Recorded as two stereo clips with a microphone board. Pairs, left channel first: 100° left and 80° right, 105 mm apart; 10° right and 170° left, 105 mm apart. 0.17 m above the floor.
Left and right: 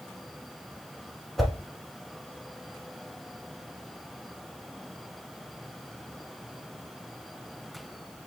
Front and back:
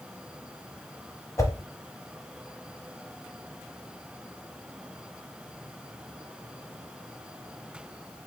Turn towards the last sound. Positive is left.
turn(degrees=10)